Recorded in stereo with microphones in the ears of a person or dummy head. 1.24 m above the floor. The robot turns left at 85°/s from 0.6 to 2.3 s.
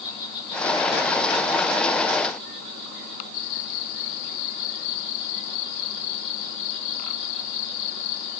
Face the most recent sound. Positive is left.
turn(degrees=-120)